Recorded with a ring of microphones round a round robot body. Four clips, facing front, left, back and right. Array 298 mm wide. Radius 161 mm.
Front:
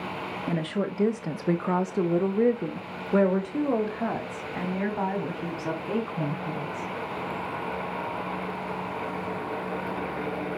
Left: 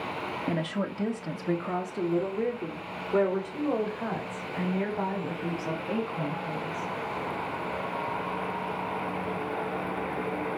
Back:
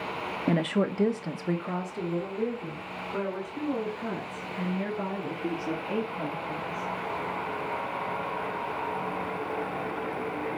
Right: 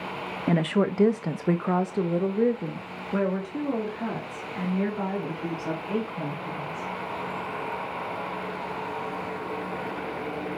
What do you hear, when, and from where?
0.5 s a woman speaking: 120° right, 1.1 m; by 6.9 s straight ahead, 5 m